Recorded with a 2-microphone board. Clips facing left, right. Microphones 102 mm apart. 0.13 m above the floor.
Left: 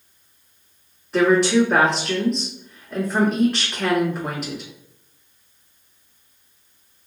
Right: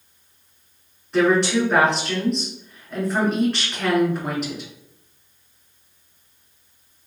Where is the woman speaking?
Centre (ahead or behind), 1.3 m.